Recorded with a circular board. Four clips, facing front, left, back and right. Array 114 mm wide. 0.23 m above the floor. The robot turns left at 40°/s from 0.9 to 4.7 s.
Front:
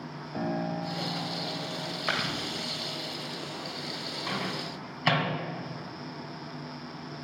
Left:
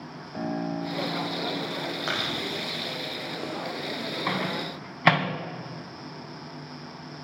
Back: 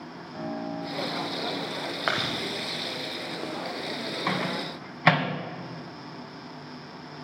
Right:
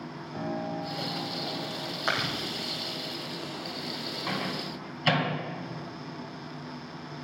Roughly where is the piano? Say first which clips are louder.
Left 3 dB, front 2 dB; ahead left.